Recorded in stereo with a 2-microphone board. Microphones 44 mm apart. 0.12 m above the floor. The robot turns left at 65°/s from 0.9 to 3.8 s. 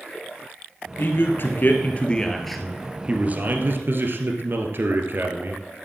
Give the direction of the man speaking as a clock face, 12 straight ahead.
9 o'clock.